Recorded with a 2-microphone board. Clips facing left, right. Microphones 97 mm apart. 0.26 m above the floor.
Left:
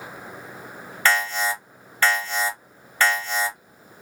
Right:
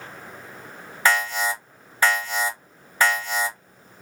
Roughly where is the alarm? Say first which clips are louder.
Even; centre.